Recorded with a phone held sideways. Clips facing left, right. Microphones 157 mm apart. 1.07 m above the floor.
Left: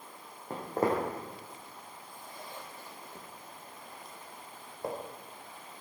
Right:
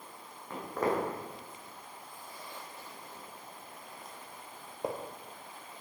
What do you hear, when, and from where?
0.5 s footsteps: 30° left (ahead or behind), 3.5 m; by 5.0 s 20° right (ahead or behind), 1.6 m